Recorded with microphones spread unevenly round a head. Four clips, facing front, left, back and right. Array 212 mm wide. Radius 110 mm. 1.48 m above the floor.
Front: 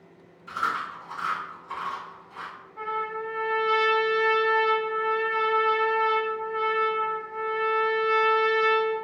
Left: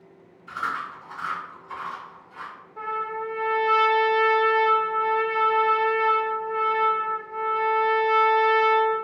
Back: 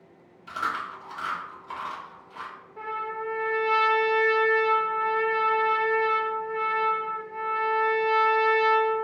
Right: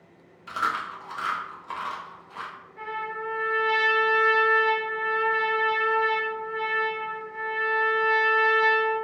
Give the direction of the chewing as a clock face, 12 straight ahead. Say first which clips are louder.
Right 2 dB, front 1 dB; 3 o'clock.